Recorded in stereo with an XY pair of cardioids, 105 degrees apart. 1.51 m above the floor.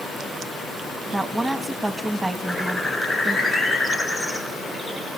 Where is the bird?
20° left, 5.5 m.